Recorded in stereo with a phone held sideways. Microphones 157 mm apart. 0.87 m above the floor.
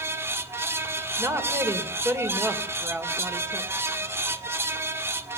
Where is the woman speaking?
20° right (ahead or behind), 3.5 m.